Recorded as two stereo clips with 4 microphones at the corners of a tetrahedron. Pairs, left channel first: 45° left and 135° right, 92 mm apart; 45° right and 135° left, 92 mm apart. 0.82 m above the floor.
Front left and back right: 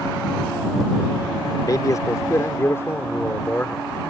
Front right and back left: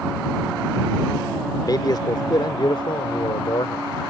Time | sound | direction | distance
1.7 | a man speaking | 5° right | ?